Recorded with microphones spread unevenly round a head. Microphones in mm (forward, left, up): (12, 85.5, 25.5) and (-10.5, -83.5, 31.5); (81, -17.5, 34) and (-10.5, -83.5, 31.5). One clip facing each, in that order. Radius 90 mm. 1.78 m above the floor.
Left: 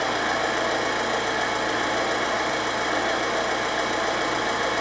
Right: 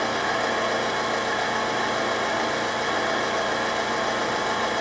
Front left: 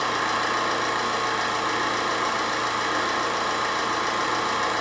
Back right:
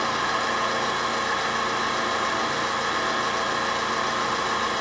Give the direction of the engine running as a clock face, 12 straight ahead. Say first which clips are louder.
Even, even; 12 o'clock.